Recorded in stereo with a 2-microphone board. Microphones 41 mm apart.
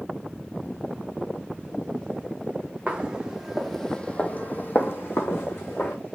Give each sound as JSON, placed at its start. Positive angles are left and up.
{"t": 2.9, "sound": "footsteps", "side_deg": -25, "distance_m": 0.8}